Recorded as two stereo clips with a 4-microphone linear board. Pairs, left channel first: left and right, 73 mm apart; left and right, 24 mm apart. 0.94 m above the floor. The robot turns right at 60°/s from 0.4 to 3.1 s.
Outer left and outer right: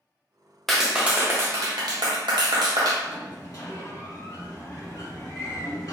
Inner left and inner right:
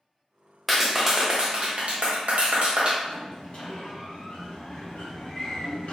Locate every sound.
0.7 s a clap: 175° left, 0.6 m; by 2.9 s 50° right, 0.6 m
3.0 s a sliding door: 50° left (ahead or behind), 1.3 m